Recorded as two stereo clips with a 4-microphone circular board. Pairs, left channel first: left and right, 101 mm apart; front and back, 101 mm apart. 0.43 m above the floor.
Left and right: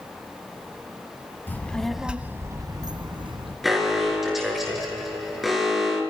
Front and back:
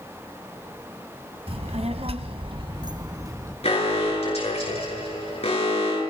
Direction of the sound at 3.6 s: Straight ahead.